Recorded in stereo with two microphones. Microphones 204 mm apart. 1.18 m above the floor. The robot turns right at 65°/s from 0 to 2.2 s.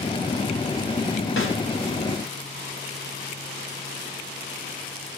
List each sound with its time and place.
1.4 s a snare drum: 85° left, 3.5 m; by 1.6 s 75° left (ahead or behind), 3.5 m